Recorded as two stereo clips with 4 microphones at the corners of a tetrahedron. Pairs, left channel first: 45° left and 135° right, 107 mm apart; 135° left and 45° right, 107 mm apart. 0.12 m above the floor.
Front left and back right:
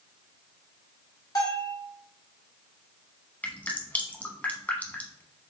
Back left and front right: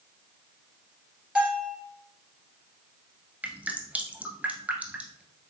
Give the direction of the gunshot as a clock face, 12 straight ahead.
I don't hear a gunshot.